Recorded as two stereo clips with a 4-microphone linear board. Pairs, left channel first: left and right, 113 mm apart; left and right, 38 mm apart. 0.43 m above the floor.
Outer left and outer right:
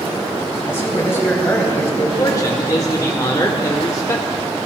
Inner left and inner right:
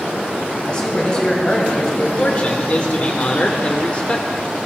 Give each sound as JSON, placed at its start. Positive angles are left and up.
{"t": 0.7, "sound": "a man speaking", "side_deg": 20, "distance_m": 3.0}
{"t": 2.2, "sound": "a man speaking", "side_deg": 30, "distance_m": 0.9}